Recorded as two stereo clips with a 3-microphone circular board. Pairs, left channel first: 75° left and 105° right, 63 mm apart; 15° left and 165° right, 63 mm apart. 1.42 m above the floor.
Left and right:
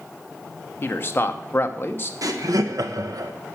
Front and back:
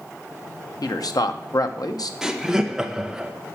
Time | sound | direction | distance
0.8 | a man speaking | 20° left | 0.9 m
2.2 | laughter | 85° right | 1.3 m